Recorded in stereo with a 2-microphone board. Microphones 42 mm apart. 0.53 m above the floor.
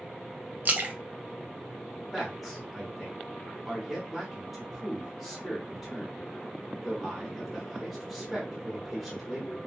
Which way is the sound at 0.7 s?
45° right (ahead or behind).